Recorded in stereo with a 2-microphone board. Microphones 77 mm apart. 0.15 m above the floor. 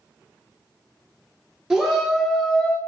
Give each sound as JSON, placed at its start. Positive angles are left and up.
{"t": 1.7, "sound": "a shout", "side_deg": -5, "distance_m": 2.5}